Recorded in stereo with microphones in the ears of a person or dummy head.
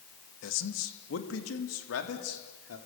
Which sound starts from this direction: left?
A man speaking, at 0.4 s.